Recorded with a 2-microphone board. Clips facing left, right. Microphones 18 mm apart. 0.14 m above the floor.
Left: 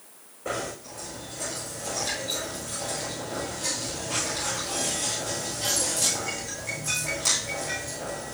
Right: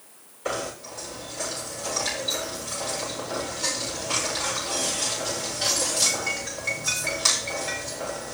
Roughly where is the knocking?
Right.